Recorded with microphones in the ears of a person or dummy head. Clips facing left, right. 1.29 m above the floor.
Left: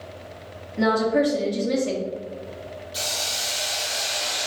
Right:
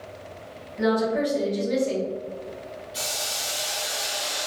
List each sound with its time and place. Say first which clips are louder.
0.8 s a woman speaking: left 2 dB; 80° left, 1.1 m
2.9 s a hiss: left 2 dB; 20° left (ahead or behind), 0.9 m